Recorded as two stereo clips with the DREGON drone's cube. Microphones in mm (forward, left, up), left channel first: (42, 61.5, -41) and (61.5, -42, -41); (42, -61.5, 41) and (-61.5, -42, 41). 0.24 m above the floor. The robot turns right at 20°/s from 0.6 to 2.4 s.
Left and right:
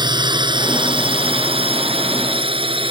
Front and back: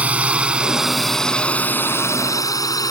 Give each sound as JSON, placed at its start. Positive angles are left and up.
{"t": 0.0, "sound": "a drone", "azimuth_deg": -115}